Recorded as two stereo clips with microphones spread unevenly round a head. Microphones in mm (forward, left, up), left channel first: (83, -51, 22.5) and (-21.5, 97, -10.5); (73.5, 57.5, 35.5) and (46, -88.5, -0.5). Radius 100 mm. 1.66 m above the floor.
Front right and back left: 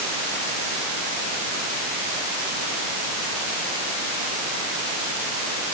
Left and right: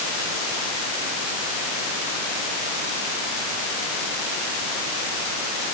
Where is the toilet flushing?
No toilet flushing in this recording.